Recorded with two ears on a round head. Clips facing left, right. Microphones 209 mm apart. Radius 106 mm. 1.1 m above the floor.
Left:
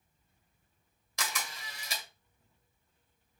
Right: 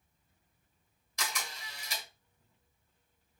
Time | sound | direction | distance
1.2 | a camera shutter | 65° left (ahead or behind) | 1.8 m